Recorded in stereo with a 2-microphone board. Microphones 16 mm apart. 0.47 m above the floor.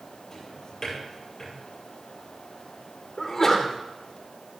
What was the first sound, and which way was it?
A drawer, 25° left (ahead or behind).